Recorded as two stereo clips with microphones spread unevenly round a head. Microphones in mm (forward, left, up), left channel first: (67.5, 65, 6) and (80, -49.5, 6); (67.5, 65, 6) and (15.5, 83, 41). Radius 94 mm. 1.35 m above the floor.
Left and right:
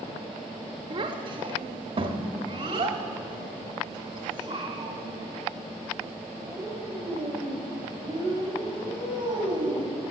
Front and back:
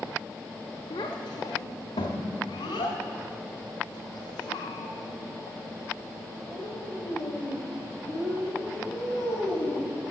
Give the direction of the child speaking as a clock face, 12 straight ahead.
2 o'clock.